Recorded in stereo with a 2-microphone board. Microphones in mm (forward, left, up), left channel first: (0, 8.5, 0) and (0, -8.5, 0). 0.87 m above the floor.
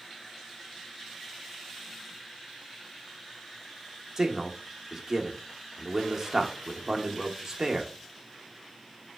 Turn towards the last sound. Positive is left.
turn(degrees=-20)  # may be behind; listen again after turning